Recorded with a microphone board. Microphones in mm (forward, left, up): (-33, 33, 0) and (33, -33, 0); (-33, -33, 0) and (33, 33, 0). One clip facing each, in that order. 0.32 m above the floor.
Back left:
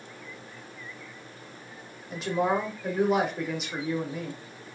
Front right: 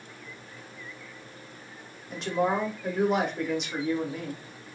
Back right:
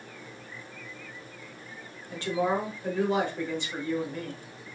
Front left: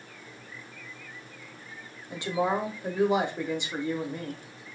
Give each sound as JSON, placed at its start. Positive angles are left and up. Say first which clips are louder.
{"t": 2.1, "sound": "a woman speaking", "louder": "even, even", "azimuth_deg": 50, "distance_m": 0.9}